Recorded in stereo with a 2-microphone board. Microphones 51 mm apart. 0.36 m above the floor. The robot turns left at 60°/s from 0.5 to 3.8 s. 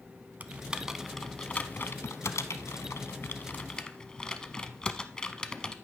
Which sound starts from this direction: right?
Typing on a keyboard, at 0.4 s.